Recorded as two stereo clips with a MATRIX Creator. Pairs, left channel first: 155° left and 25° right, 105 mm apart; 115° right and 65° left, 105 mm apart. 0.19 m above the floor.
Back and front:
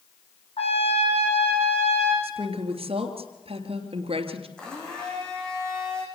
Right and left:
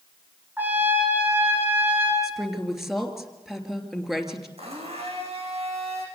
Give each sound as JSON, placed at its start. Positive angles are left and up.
{"t": 0.6, "sound": "a trumpet", "azimuth_deg": 140, "distance_m": 8.0}
{"t": 2.2, "sound": "a woman speaking", "azimuth_deg": -20, "distance_m": 3.0}
{"t": 4.6, "sound": "a blender", "azimuth_deg": 75, "distance_m": 6.5}